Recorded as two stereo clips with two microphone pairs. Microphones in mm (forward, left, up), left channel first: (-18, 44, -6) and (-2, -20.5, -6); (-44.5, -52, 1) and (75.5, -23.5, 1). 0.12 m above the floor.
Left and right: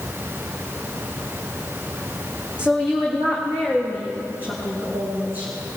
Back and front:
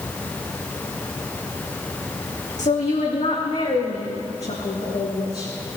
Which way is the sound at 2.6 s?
150° right.